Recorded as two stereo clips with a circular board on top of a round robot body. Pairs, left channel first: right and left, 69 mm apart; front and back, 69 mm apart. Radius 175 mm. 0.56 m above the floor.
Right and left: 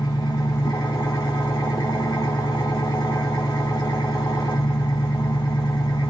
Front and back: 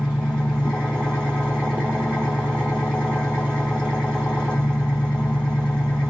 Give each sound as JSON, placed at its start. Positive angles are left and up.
{"t": 0.0, "sound": "an engine running", "azimuth_deg": -80, "distance_m": 3.0}